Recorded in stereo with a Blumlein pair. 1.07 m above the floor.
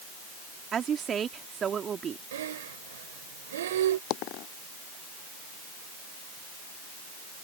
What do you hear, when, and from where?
0.7 s a woman speaking: 20° right
2.3 s breathing: 60° right
4.1 s a dropped coin: 40° left